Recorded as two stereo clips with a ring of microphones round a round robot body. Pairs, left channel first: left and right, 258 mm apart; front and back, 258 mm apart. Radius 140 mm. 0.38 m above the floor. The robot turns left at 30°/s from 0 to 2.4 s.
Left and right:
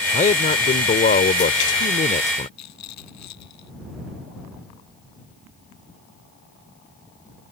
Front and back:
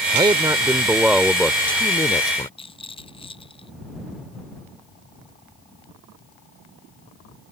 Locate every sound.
0.1 s a man speaking: 125° left; by 2.5 s 60° left
2.6 s a rattle: 70° left